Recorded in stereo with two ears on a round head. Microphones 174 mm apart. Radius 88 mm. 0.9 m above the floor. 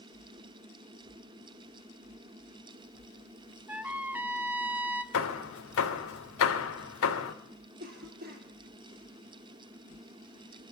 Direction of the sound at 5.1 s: 80° left.